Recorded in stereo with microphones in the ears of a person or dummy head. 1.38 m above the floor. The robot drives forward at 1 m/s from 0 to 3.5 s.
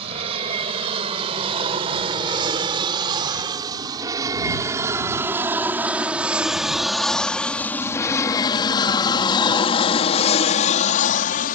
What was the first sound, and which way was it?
An aircraft, 30° right (ahead or behind).